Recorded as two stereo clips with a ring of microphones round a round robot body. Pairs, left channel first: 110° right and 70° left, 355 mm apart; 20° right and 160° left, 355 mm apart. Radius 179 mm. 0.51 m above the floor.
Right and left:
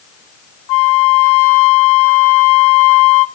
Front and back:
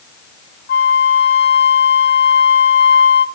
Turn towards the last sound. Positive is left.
turn(degrees=-85)